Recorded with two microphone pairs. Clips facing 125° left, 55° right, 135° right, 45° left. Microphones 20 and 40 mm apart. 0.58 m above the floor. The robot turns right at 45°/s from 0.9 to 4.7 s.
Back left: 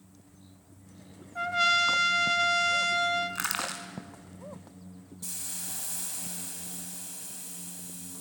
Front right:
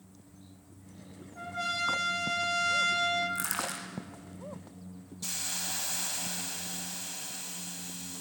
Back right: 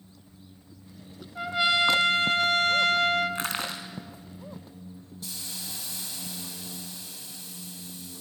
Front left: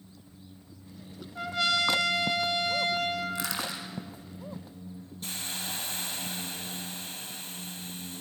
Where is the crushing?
175° left, 3.5 m; by 3.9 s 160° right, 3.5 m.